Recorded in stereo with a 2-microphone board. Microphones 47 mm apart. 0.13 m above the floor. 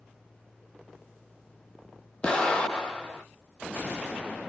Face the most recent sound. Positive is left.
turn(degrees=20)  # may be behind; listen again after turning